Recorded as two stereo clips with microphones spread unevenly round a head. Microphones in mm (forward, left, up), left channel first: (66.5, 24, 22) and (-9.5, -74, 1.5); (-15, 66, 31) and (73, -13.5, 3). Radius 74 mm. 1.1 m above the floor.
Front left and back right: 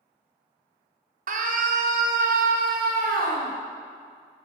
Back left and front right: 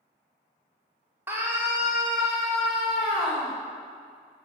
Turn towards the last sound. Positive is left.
turn(degrees=-130)